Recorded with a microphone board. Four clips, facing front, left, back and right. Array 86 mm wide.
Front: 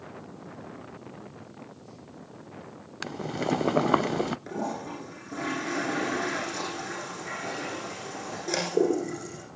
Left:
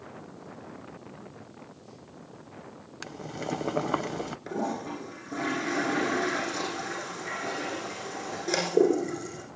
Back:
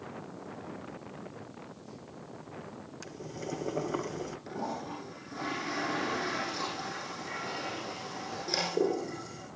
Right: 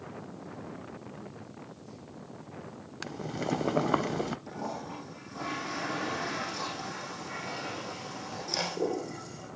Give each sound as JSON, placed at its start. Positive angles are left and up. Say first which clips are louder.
{"t": 3.0, "sound": "boiling", "louder": "right 1 dB, front 11 dB", "azimuth_deg": -5, "distance_m": 0.5}
{"t": 4.5, "sound": "a toilet flushing", "louder": "left 6 dB, front 4 dB", "azimuth_deg": 65, "distance_m": 8.5}